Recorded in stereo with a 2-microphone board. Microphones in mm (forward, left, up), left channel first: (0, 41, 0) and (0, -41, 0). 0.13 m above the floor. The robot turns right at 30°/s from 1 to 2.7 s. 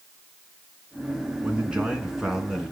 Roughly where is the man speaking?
Centre.